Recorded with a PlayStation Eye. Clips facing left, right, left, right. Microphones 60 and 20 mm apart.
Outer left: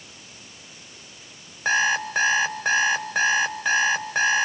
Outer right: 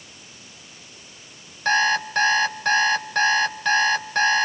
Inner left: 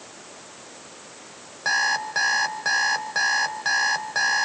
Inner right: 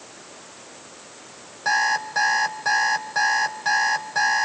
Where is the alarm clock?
10° left (ahead or behind), 2.5 m.